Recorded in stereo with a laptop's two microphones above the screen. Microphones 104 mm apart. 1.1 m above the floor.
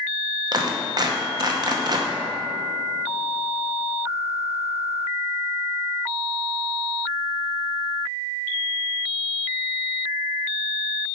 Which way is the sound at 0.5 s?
40° right (ahead or behind).